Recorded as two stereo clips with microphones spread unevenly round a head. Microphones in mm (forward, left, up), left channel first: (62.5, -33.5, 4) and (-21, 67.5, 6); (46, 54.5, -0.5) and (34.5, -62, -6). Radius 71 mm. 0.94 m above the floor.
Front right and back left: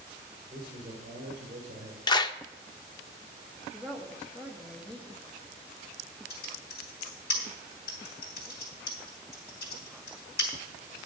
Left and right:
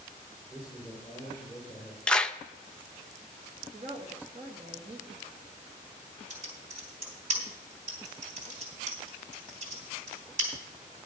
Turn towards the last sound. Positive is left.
turn(degrees=-80)